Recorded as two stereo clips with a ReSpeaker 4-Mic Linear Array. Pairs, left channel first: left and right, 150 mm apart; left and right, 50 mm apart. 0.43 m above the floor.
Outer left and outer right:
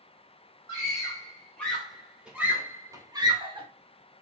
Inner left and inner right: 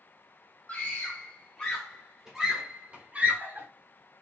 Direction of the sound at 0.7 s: 25° left (ahead or behind).